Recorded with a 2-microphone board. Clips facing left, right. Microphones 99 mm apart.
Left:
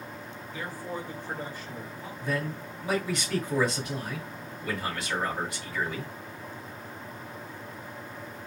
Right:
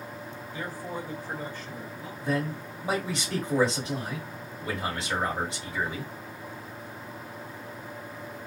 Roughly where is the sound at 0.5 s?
Right.